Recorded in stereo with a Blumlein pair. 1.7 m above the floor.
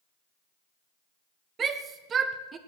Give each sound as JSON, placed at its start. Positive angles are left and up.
{"t": 1.6, "sound": "a shout", "azimuth_deg": -20, "distance_m": 1.6}